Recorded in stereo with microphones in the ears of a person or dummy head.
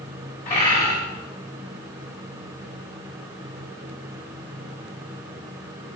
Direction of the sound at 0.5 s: 40° left (ahead or behind).